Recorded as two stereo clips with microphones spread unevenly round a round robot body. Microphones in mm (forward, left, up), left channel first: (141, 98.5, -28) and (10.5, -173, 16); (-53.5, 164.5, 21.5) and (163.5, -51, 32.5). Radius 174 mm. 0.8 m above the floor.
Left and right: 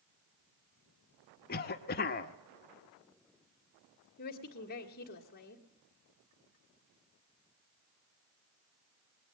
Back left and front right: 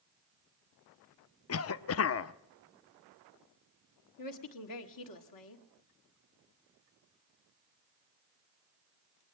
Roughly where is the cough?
Left.